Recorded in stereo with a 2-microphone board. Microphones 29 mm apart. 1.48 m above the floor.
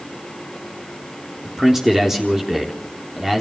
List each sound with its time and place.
1.4 s a man speaking: 15° right (ahead or behind), 3.5 m